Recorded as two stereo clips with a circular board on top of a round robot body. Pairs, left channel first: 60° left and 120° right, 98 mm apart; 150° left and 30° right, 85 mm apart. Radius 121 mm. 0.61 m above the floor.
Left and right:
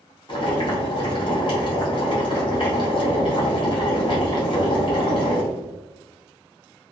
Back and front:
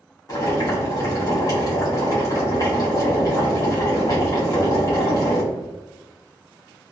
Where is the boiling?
100° left, 0.8 m.